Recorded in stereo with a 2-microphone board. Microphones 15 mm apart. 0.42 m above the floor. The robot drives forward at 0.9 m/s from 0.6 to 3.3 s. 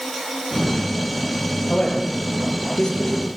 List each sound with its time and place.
1.7 s a man speaking: 55° left (ahead or behind), 9 m; by 3.3 s 65° left (ahead or behind), 8 m